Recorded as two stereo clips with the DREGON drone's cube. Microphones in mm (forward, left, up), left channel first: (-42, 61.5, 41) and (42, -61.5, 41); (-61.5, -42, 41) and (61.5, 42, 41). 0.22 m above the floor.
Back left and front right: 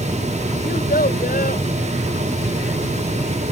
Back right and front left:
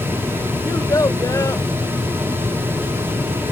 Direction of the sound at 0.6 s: 145° left.